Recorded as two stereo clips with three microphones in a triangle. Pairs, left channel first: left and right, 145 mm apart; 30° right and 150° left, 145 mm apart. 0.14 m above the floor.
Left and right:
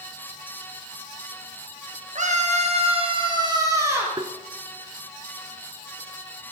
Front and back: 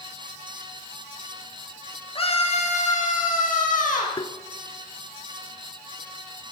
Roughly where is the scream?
Right.